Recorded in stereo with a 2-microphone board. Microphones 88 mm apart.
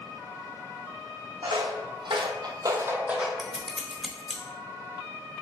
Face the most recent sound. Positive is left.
turn(degrees=0)  # may be behind; listen again after turning